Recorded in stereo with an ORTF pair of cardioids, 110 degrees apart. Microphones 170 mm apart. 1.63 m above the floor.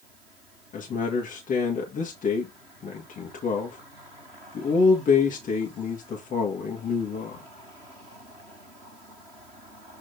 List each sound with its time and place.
0.7 s a man speaking: 55° left, 1.9 m